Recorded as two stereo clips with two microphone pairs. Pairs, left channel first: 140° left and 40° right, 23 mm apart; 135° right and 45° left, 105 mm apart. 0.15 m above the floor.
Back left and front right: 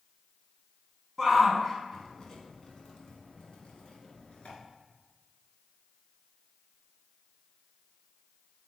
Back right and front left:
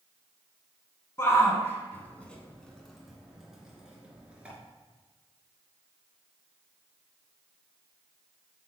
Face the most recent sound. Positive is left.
turn(degrees=120)